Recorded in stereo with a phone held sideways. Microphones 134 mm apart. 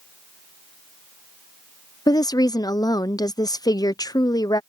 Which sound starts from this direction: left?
A woman speaking, at 2.1 s.